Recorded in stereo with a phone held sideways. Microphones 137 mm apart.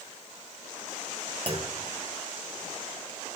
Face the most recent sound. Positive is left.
turn(degrees=-40)  # may be behind; listen again after turning